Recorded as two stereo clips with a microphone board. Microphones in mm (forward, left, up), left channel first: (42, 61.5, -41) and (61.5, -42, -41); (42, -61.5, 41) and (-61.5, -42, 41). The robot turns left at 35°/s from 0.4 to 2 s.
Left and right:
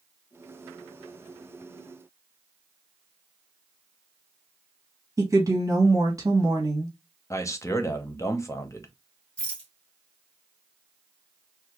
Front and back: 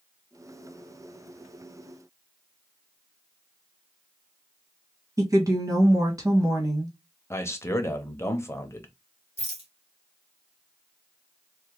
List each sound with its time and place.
5.2 s a woman speaking: 135° right, 1.2 m
7.3 s a man speaking: 45° left, 0.7 m
9.4 s a rattle: straight behind, 1.5 m